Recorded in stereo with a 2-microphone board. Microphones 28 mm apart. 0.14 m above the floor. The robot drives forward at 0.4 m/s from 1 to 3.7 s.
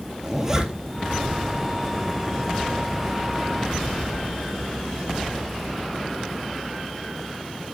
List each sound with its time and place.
0.2 s a zipper: 15° right (ahead or behind), 2 m